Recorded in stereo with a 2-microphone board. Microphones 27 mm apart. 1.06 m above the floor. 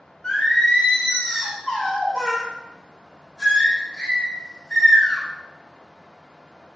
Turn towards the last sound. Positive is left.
turn(degrees=10)  # may be behind; listen again after turning